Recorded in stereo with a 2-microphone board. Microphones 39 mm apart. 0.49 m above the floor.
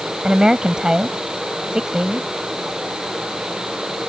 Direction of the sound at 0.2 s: 20° right (ahead or behind).